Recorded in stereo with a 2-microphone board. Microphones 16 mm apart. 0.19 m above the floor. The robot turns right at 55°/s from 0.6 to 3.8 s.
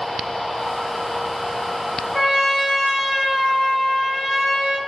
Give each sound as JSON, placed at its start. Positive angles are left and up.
{"t": 2.1, "sound": "a trumpet", "side_deg": -5, "distance_m": 1.6}